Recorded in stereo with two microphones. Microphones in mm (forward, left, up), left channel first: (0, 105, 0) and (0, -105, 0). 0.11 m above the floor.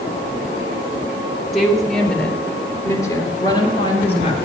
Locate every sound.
1.5 s a woman speaking: centre (ahead or behind), 3.5 m; by 4.3 s 30° left (ahead or behind), 3 m